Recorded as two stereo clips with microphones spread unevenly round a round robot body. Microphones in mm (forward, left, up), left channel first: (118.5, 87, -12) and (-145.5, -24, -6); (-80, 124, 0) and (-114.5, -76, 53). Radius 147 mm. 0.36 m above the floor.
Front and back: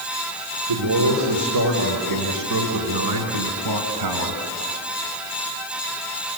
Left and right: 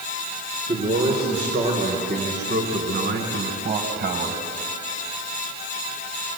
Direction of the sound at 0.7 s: 165° right.